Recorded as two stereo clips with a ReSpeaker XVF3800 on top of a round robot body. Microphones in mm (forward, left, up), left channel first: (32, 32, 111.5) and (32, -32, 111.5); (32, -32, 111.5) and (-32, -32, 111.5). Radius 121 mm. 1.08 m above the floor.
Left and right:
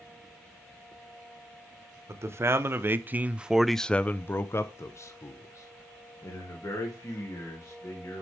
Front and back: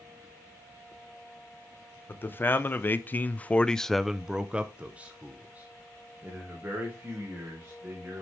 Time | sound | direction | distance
2.1 | a man speaking | 50° right | 1.2 m